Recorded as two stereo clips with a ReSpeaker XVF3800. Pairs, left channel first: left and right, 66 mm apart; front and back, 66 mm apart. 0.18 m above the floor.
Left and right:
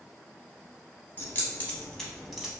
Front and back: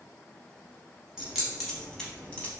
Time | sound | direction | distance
1.2 | keys jangling | 110° left | 0.8 m